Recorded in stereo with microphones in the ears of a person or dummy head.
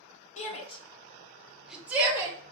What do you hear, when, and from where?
0.4 s a shout: 45° left (ahead or behind), 1.1 m; by 2.4 s 15° right (ahead or behind), 1.4 m